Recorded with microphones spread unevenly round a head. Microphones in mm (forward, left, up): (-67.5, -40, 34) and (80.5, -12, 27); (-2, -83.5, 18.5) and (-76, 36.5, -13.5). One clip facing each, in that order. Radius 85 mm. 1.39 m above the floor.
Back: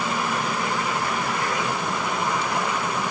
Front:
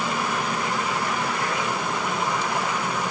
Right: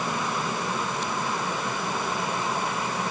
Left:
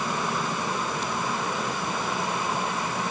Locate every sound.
Only background noise.